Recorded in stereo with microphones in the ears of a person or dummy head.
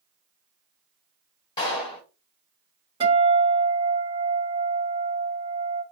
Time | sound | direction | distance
1.6 | a clap | 25° left (ahead or behind) | 1.3 m
3.0 | a guitar | 25° right (ahead or behind) | 1.8 m